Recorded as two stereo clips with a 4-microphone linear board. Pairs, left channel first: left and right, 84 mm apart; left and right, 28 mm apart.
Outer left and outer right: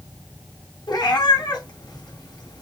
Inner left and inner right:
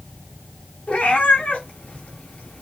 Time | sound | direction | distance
0.9 | a cat meowing | 65° left (ahead or behind) | 1.8 m